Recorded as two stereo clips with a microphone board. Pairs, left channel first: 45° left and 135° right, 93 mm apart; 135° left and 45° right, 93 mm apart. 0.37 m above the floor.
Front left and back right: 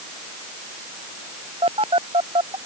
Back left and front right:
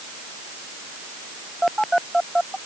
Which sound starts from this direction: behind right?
A phone buzzing, at 1.6 s.